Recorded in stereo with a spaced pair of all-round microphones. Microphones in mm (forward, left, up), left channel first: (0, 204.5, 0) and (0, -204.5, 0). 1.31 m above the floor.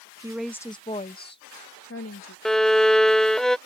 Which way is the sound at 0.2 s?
10° right (ahead or behind).